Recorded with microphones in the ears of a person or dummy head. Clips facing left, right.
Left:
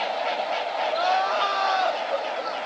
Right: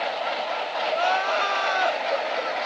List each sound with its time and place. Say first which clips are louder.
0.9 s crying: even; 35° right (ahead or behind), 0.9 m